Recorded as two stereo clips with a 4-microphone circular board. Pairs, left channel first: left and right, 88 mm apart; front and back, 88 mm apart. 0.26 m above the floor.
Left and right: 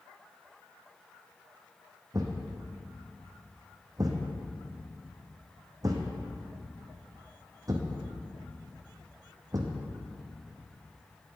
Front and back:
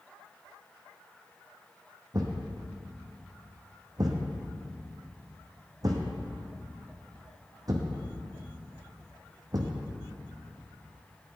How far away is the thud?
About 1.3 m.